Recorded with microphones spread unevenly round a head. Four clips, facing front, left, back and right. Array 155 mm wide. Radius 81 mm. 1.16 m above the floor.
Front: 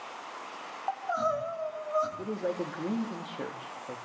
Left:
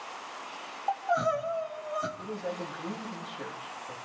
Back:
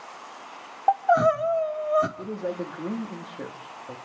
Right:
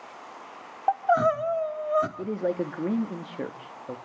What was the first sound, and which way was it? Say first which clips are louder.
Crying: right 6 dB, back 11 dB; 165° right.